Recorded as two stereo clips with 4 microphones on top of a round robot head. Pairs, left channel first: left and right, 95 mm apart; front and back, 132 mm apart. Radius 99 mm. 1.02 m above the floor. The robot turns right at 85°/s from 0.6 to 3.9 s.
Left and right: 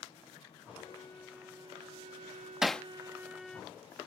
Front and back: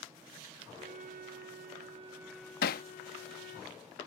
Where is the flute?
130° left; by 3.6 s 15° left.